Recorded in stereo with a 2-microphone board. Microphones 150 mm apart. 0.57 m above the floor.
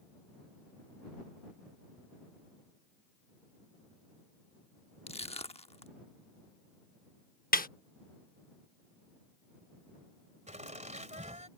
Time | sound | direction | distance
5.1 | crushing | 45° left (ahead or behind) | ?
7.5 | a snare drum | 75° left (ahead or behind) | ?
10.5 | laughter | 50° right (ahead or behind) | ?